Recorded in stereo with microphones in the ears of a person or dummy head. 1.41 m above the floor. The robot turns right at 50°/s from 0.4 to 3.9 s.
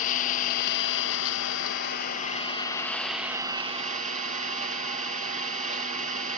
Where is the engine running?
45° left, 1.3 m; by 6.4 s 140° right, 1.3 m.